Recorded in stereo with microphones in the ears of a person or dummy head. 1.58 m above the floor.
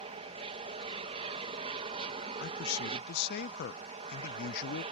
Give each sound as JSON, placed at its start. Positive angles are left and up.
{"t": 0.0, "sound": "an aircraft", "side_deg": -35}
{"t": 2.4, "sound": "a man speaking", "side_deg": 60}